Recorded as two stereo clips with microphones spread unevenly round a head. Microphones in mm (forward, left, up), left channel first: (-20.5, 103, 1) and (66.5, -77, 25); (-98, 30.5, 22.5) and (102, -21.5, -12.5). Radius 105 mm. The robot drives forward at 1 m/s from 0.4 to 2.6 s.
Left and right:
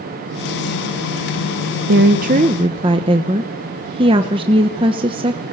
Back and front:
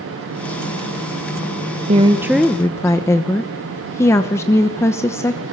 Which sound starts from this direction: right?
A woman speaking, at 1.9 s.